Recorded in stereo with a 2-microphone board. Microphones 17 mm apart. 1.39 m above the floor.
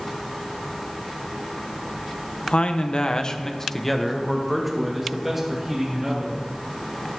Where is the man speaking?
75° left (ahead or behind), 1.0 m; by 6.5 s 25° right (ahead or behind), 3 m.